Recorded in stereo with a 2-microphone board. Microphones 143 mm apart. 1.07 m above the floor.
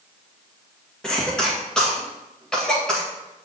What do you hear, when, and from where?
1.0 s a cough: 5° left (ahead or behind), 1.7 m